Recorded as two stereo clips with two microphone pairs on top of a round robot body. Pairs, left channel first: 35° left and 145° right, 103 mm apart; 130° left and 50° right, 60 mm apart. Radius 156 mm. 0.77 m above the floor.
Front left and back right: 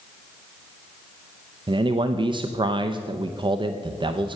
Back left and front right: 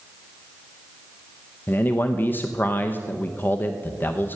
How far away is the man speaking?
About 0.7 m.